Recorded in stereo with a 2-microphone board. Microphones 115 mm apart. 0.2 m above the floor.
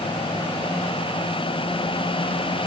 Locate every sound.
Only background noise.